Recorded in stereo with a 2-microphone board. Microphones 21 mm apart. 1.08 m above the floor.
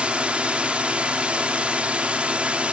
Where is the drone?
60° right (ahead or behind); by 2.7 s 65° right (ahead or behind).